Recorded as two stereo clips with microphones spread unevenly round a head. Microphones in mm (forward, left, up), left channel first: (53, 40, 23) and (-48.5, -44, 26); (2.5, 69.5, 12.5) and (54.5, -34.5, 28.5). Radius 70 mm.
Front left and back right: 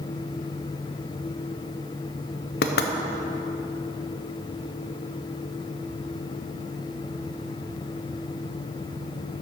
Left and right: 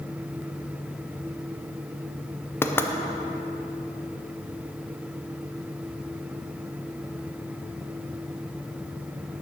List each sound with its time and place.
2.6 s knocking: 45° left, 0.6 m